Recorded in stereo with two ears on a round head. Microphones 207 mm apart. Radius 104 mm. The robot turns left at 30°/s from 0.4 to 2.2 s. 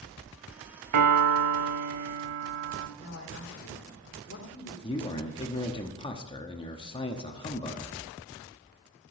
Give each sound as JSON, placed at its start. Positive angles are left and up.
{"t": 0.9, "sound": "a piano", "azimuth_deg": -85, "distance_m": 0.9}
{"t": 3.0, "sound": "a man speaking", "side_deg": 50, "distance_m": 2.0}
{"t": 4.8, "sound": "a man speaking", "side_deg": 20, "distance_m": 1.1}